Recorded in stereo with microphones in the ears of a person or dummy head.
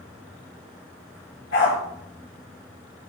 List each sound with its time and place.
1.5 s a dog barking: 75° left (ahead or behind), 8.5 m